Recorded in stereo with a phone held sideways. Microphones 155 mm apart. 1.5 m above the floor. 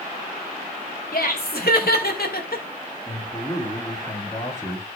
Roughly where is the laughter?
Left.